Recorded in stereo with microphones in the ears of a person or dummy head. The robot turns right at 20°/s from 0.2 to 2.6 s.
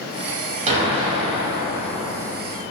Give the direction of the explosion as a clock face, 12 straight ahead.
1 o'clock.